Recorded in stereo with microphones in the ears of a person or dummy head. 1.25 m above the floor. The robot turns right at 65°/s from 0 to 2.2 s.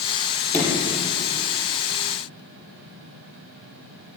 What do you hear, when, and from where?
0.5 s a sliding door: 10° left (ahead or behind), 5 m; by 0.9 s 35° left (ahead or behind), 5 m